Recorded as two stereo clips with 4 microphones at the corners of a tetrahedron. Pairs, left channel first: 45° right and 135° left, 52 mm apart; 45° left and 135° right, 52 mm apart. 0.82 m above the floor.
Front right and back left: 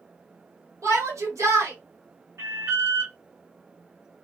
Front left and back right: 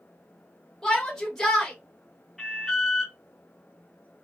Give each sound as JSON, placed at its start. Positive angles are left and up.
{"t": 0.8, "sound": "a shout", "azimuth_deg": 130, "distance_m": 1.2}
{"t": 2.4, "sound": "an alarm", "azimuth_deg": 130, "distance_m": 1.1}